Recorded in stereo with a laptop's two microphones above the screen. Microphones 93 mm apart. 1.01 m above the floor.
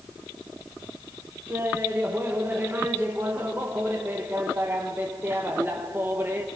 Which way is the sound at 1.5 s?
25° right (ahead or behind).